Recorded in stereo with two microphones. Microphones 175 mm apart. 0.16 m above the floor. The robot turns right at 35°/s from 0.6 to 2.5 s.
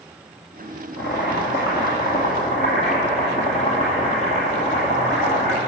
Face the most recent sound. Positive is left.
turn(degrees=140)